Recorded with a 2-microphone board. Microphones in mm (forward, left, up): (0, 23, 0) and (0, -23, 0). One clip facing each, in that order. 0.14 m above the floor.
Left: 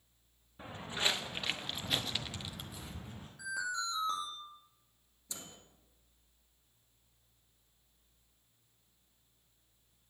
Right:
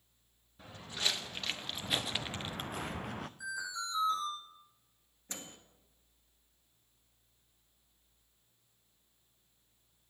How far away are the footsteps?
About 1.3 m.